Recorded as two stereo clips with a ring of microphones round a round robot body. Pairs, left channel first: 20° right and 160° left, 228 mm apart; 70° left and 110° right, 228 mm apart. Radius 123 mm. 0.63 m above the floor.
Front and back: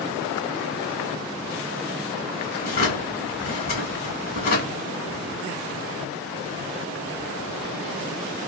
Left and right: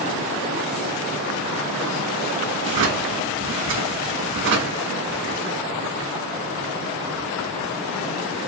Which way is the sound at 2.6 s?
70° right.